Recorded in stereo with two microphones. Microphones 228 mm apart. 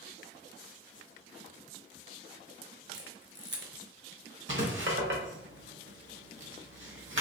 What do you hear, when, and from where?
2.9 s a camera shutter: 55° right (ahead or behind), 0.6 m
4.5 s writing: 60° right (ahead or behind), 0.9 m